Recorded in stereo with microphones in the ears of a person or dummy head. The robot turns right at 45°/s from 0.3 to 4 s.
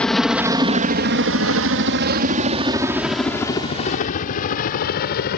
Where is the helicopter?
5° left (ahead or behind); by 5.4 s 45° left (ahead or behind).